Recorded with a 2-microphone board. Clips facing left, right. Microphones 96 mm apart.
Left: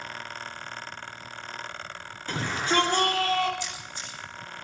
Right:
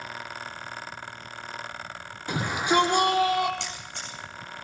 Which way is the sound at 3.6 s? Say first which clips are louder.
Even; 80° right.